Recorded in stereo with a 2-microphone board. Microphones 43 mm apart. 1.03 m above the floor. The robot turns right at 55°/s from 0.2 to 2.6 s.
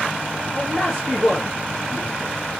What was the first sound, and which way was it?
A man speaking, 30° right.